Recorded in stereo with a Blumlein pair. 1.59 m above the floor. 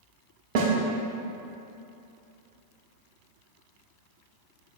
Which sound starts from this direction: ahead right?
A snare drum, at 0.6 s.